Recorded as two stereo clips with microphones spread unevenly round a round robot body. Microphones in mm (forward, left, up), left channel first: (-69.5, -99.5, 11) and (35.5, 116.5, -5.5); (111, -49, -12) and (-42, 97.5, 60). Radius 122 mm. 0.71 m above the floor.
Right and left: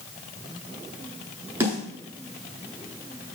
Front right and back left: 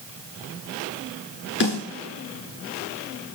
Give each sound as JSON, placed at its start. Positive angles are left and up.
{"t": 1.6, "sound": "a snare drum", "azimuth_deg": -15, "distance_m": 9.5}